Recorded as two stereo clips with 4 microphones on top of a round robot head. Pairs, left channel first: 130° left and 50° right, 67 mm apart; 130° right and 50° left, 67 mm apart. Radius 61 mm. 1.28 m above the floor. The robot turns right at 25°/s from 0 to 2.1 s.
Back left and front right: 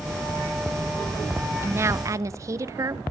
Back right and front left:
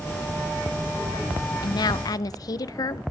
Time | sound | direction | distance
1.6 | a woman speaking | 110° right | 0.9 m